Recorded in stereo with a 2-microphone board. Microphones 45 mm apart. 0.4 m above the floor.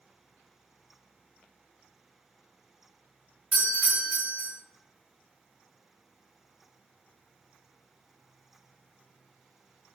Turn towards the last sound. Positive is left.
turn(degrees=-45)  # may be behind; listen again after turning